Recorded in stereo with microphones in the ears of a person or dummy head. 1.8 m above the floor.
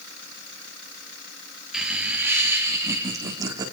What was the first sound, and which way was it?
Laughter, centre (ahead or behind).